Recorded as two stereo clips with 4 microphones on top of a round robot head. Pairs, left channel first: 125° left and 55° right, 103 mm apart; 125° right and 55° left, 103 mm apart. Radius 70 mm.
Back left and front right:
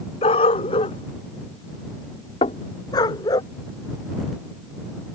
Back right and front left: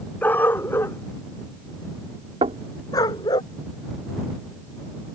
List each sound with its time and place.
0.2 s a dog barking: 160° left; by 3.4 s straight behind
2.4 s knocking: 90° left